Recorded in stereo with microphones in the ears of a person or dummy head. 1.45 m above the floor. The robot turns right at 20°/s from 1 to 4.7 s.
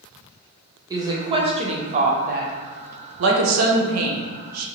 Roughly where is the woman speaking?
Right.